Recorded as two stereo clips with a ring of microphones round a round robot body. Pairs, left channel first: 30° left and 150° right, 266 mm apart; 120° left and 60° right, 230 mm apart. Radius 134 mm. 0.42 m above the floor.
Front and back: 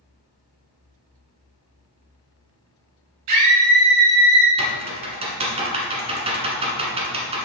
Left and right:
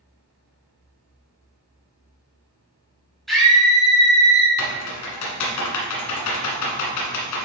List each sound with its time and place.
3.3 s a scream: 150° right, 2.5 m
4.6 s typing on a keyboard: 140° left, 1.4 m